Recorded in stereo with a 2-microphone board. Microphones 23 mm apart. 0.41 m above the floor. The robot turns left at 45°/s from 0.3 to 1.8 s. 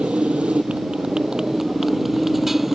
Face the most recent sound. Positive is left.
turn(degrees=-165)